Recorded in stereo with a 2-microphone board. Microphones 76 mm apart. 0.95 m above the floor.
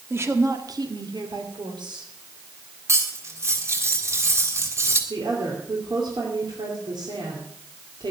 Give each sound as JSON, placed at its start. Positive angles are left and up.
{"t": 0.1, "sound": "a woman speaking", "side_deg": -30, "distance_m": 1.5}
{"t": 2.9, "sound": "cutlery clinking", "side_deg": -40, "distance_m": 1.6}
{"t": 5.1, "sound": "a woman speaking", "side_deg": -80, "distance_m": 3.0}